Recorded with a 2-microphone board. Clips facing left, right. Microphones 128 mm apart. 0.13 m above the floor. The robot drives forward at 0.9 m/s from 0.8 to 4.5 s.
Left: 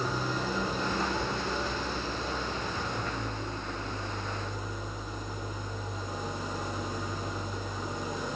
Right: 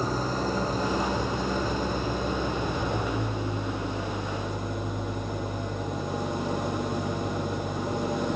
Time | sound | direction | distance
0.0 | an engine running | 40° right (ahead or behind) | 4 m